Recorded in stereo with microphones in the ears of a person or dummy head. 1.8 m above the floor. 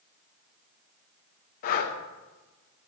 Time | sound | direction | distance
1.6 | breathing | 35° left (ahead or behind) | 0.8 m